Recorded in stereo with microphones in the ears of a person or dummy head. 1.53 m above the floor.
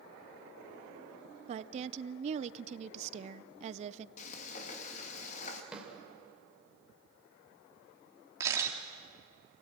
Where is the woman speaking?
40° right (ahead or behind), 0.6 m.